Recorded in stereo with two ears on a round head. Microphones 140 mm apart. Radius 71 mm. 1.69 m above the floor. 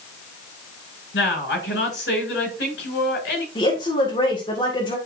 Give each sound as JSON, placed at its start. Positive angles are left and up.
{"t": 1.1, "sound": "a woman speaking", "side_deg": 85, "distance_m": 6.0}
{"t": 3.5, "sound": "a woman speaking", "side_deg": 30, "distance_m": 1.9}